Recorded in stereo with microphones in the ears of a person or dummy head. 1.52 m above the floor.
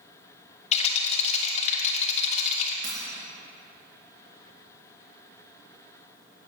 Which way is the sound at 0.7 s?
40° left (ahead or behind).